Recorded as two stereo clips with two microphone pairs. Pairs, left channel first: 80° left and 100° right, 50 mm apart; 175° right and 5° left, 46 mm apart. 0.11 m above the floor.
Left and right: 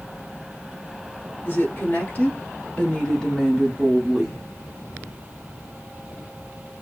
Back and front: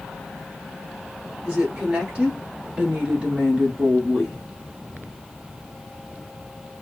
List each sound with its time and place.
1.4 s a woman speaking: 65° left, 1.9 m; by 4.4 s 35° right, 1.4 m